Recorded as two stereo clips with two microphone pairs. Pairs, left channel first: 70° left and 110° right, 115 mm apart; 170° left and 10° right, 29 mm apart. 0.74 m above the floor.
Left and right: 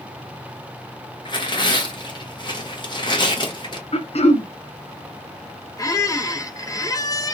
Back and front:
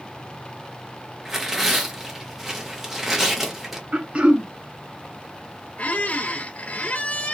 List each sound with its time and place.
1.2 s tearing paper: 60° left, 1.1 m
3.9 s throat clearing: 40° left, 0.8 m
5.8 s a squeak: 130° left, 0.6 m